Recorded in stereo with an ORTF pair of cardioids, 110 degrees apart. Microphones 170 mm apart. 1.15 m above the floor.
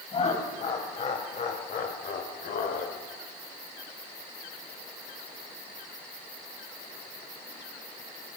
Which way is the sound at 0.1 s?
40° left.